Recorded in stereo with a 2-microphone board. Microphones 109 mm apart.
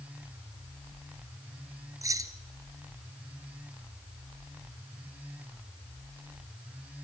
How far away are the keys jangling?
About 1.5 m.